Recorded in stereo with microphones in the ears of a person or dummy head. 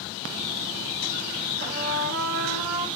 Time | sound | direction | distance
1.6 | a trumpet | 45° right (ahead or behind) | 0.7 m